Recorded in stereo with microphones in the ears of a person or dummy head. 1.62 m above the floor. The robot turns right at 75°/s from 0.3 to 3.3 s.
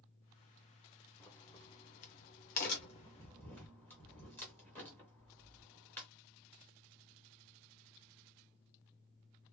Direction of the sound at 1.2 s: 5° left (ahead or behind).